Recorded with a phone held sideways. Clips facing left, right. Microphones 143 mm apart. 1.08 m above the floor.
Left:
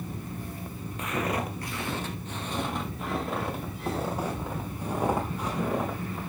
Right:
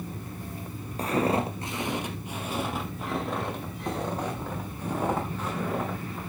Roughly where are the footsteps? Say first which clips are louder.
Right 5 dB; right.